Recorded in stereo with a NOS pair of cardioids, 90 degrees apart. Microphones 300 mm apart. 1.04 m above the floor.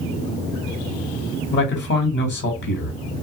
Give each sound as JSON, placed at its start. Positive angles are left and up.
{"t": 1.5, "sound": "a man speaking", "azimuth_deg": 35, "distance_m": 1.4}